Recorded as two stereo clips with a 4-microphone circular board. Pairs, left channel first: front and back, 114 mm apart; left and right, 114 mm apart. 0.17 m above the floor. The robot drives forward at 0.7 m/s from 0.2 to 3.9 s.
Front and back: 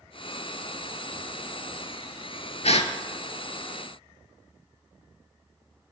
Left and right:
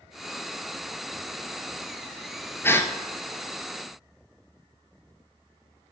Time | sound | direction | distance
2.6 | a gasp | 20° left | 0.8 m